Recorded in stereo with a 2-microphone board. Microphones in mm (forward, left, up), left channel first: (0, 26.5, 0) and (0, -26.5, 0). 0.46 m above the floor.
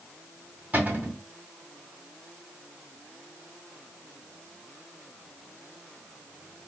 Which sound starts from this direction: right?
A cupboard door, at 0.7 s.